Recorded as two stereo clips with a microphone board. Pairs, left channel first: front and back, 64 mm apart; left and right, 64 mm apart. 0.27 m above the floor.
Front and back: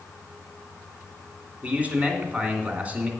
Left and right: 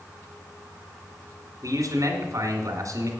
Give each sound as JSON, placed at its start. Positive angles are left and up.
{"t": 1.6, "sound": "a man speaking", "azimuth_deg": -115, "distance_m": 2.0}